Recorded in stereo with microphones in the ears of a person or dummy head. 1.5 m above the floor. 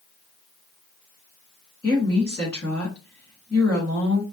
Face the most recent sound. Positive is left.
turn(degrees=15)  # may be behind; listen again after turning